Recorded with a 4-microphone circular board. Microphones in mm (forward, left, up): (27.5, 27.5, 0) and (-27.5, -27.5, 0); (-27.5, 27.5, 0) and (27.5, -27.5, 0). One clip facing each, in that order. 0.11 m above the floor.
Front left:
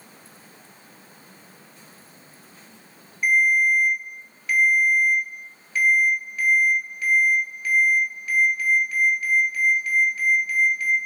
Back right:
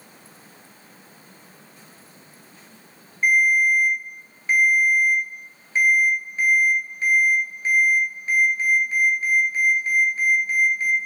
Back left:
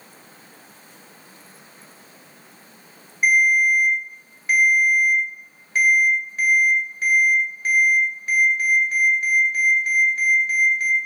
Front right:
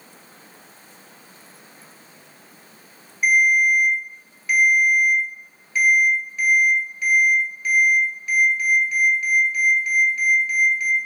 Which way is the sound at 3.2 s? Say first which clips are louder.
Back right 1 dB, even; 175° left.